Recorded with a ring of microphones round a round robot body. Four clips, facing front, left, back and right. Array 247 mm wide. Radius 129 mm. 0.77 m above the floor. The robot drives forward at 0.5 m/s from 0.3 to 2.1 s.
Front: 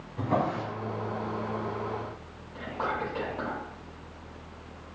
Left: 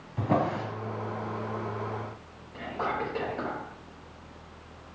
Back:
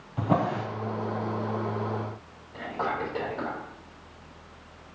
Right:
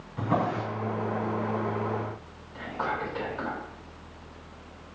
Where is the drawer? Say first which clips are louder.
Even, back 2 dB; 145° left, 3 m.